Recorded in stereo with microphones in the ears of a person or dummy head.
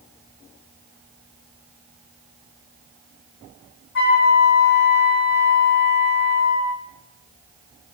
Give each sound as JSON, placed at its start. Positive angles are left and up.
{"t": 4.0, "sound": "a flute", "side_deg": 50, "distance_m": 0.8}